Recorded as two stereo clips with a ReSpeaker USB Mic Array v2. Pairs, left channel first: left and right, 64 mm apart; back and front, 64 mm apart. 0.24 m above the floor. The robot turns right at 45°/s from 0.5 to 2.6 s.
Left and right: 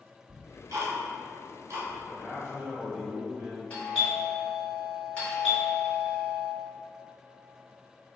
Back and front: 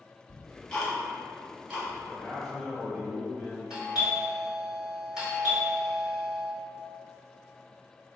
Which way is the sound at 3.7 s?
60° left.